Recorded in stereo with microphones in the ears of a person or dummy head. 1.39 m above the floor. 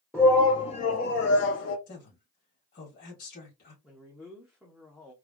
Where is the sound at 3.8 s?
Centre (ahead or behind), 0.7 m.